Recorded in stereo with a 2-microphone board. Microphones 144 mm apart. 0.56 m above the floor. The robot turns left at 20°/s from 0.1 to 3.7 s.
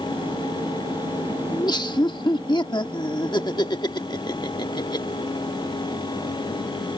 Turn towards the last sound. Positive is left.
turn(degrees=70)